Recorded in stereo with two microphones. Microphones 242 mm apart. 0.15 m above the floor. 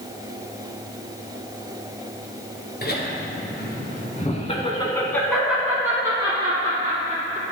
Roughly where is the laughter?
Left.